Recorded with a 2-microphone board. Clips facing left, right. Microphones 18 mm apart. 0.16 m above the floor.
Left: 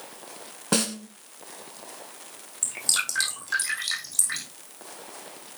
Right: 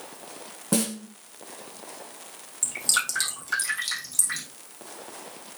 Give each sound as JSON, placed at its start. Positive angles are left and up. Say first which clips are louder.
{"t": 0.7, "sound": "a snare drum", "louder": "left 1 dB", "side_deg": 40, "distance_m": 1.3}
{"t": 2.6, "sound": "dripping", "louder": "right 1 dB", "side_deg": 10, "distance_m": 5.0}